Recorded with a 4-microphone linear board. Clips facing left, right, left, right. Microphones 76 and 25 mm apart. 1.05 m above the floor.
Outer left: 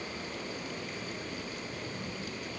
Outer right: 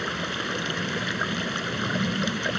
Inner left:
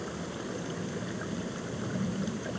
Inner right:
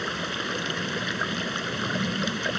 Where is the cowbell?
No cowbell in this recording.